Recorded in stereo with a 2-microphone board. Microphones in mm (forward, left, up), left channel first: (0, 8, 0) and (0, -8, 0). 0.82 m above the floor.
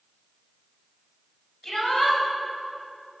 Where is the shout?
25° left (ahead or behind), 4 m.